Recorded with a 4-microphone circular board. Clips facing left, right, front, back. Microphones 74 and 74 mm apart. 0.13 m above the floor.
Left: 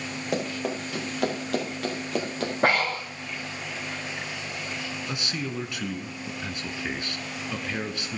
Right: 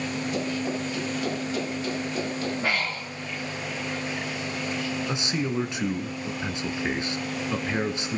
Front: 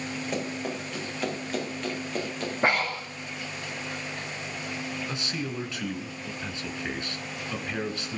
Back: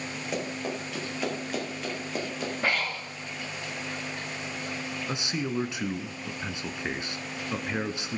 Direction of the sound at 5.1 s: 130° right.